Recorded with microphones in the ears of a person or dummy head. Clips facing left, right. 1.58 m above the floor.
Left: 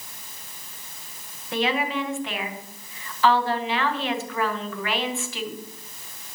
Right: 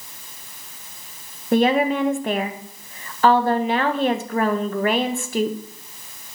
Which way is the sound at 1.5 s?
35° right (ahead or behind).